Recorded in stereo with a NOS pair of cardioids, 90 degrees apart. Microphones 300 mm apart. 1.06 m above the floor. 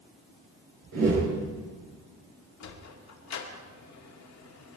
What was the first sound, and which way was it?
A whoosh, 55° right.